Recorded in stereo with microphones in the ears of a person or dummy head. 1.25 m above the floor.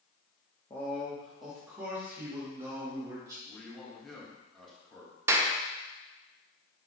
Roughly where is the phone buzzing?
No phone buzzing in this recording.